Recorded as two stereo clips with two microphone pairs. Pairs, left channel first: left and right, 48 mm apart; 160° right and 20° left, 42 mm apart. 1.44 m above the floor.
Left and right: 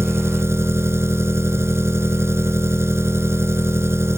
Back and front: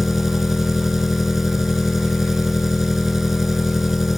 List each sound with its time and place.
0.0 s an engine running: 60° right